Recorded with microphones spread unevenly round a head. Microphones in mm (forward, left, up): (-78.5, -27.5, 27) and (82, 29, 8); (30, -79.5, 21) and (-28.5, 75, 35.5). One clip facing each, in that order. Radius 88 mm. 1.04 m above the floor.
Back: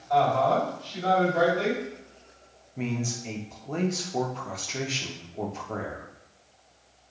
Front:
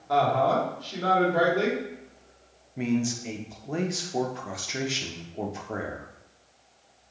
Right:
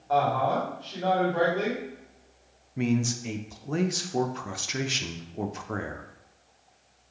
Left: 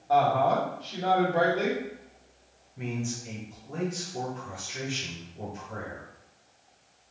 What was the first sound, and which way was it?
A woman speaking, 35° left.